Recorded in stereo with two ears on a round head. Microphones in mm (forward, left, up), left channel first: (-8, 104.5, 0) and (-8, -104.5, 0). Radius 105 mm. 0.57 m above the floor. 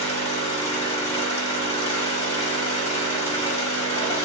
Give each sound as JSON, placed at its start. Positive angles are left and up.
{"t": 0.0, "sound": "an engine running", "side_deg": 25, "distance_m": 0.8}